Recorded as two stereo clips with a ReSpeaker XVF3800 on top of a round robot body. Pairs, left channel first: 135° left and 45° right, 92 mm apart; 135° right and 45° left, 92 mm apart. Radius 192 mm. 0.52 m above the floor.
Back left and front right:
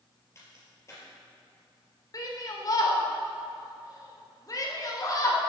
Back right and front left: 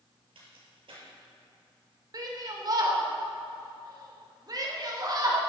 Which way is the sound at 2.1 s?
90° left.